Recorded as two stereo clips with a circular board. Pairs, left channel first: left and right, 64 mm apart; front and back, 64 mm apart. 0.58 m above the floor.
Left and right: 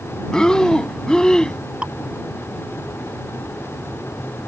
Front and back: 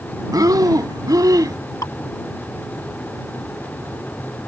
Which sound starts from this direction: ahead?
Dripping, at 1.8 s.